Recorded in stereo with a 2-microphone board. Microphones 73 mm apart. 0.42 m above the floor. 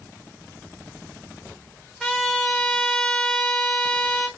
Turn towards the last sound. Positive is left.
turn(degrees=5)  # may be behind; listen again after turning